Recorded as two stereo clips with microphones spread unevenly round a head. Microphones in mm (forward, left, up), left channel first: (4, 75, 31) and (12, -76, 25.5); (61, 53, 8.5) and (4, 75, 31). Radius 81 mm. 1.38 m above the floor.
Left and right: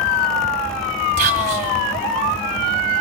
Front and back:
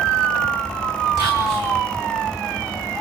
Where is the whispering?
135° right, 3 m.